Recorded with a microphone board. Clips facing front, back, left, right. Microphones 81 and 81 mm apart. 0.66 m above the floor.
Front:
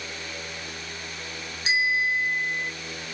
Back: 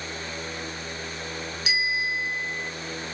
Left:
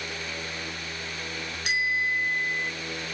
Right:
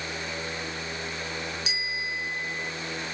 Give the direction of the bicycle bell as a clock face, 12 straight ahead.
10 o'clock.